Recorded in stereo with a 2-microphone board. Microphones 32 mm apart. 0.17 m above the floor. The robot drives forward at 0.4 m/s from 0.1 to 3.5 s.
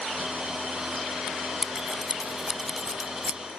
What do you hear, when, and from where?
1.6 s scissors: 15° right (ahead or behind)